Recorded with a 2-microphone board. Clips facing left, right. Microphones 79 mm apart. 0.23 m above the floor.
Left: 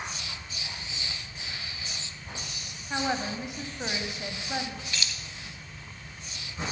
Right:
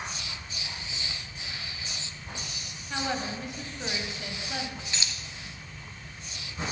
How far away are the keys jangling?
About 0.9 m.